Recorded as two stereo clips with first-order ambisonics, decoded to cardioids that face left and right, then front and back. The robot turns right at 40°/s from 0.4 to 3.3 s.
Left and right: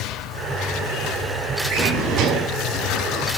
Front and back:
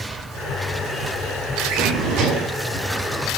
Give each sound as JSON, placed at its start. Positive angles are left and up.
{"t": 1.7, "sound": "a drawer", "azimuth_deg": -145, "distance_m": 6.5}